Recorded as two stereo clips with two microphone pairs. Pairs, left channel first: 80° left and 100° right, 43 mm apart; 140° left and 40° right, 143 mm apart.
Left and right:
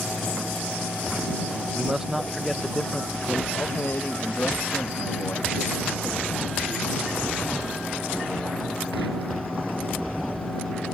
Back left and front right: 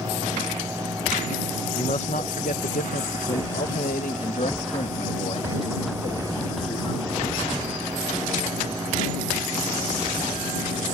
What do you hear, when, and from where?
1.8 s a man speaking: 175° right; by 7.4 s 90° left